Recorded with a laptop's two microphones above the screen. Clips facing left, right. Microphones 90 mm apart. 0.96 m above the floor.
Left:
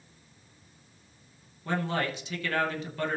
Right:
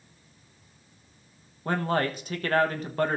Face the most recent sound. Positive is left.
turn(degrees=-45)  # may be behind; listen again after turning